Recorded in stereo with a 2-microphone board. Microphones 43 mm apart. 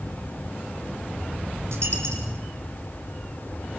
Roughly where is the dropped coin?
Right.